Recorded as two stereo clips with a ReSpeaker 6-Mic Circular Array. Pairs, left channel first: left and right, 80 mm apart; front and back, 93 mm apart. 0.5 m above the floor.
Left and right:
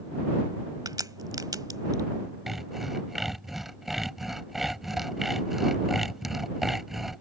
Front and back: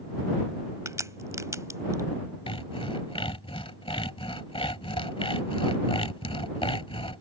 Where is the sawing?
5° right.